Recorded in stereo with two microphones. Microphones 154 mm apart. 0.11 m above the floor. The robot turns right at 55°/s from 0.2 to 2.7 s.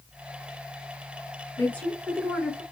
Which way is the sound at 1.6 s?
15° left (ahead or behind).